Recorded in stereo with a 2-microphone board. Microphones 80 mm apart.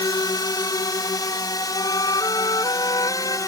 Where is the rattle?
No rattle in this recording.